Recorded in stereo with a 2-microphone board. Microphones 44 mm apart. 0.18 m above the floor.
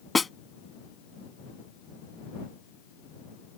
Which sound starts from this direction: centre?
A snare drum, at 0.1 s.